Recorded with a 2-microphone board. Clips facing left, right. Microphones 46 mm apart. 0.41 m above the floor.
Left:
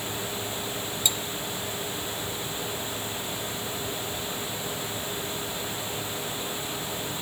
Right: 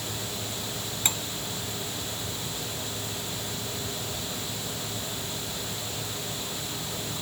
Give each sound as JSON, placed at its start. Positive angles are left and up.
{"t": 1.1, "sound": "cutlery clinking", "side_deg": -45}